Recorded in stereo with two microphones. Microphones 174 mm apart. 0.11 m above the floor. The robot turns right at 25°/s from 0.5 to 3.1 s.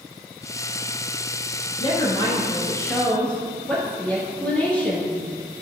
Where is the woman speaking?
135° left, 1.7 m; by 5.2 s 170° left, 1.7 m.